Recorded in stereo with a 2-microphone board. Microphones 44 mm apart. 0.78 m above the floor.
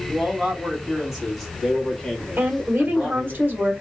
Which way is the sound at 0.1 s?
20° right (ahead or behind).